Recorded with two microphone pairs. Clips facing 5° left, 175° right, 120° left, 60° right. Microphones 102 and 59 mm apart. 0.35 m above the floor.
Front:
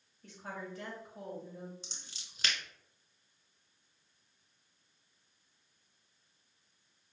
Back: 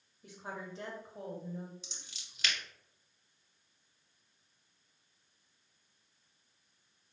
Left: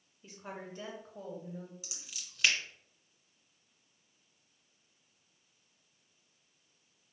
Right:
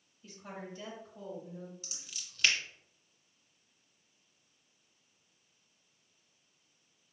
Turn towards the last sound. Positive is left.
turn(degrees=45)